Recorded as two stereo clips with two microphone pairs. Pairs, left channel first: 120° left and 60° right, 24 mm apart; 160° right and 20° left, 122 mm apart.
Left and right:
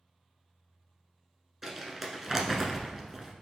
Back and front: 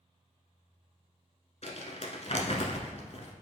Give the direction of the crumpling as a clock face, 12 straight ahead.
5 o'clock.